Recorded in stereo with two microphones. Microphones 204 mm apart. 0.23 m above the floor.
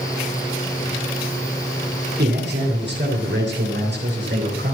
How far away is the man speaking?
About 2.5 m.